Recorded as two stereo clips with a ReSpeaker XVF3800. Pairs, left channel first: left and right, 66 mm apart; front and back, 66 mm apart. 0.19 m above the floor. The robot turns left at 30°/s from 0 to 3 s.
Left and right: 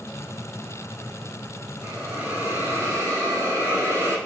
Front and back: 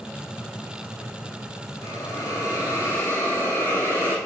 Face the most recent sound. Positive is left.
turn(degrees=-45)